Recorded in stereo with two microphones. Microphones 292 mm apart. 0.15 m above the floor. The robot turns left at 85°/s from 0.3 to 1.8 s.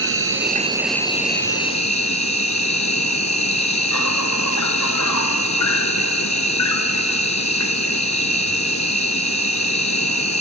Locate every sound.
0.0 s an insect: 130° right, 1.1 m; by 10.4 s 105° left, 1.1 m